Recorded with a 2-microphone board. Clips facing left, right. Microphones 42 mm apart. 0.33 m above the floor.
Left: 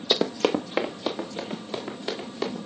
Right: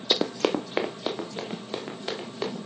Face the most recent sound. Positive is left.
turn(degrees=-5)  # may be behind; listen again after turning